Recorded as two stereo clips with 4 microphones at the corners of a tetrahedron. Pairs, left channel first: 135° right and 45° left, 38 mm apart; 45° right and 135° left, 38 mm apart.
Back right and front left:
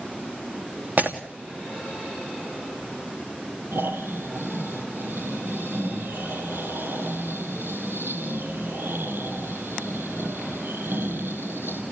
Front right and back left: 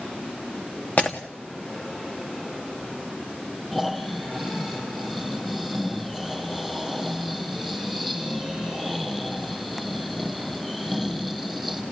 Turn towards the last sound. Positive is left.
turn(degrees=40)